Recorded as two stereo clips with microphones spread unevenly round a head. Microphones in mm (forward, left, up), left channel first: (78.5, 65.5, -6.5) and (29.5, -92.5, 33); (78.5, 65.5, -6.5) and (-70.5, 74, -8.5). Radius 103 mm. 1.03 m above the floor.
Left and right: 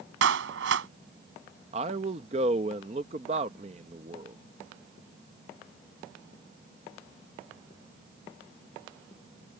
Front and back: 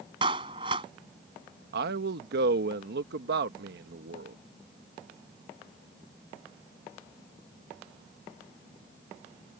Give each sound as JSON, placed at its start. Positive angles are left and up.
{"t": 0.2, "sound": "a clap", "azimuth_deg": -115}
{"t": 1.7, "sound": "a man speaking", "azimuth_deg": -170}